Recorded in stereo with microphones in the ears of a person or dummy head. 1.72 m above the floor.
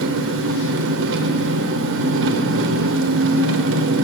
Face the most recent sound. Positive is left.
turn(degrees=-70)  # may be behind; listen again after turning